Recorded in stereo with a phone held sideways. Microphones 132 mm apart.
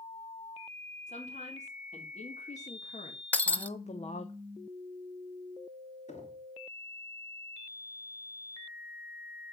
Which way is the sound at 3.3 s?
10° left (ahead or behind).